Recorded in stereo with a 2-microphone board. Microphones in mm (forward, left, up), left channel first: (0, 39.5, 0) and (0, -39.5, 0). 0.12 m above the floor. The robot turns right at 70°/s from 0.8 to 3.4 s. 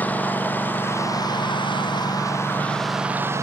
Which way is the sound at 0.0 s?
20° left (ahead or behind).